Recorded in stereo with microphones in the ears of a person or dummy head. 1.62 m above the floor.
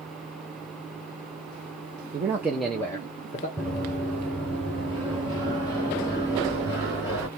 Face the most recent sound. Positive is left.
turn(degrees=25)  # may be behind; listen again after turning